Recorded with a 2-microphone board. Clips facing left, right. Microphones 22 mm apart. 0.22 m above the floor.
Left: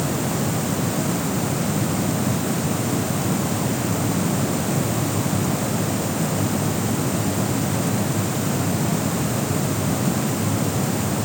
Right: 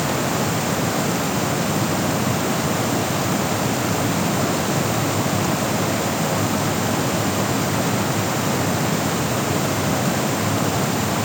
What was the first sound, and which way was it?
Only background noise.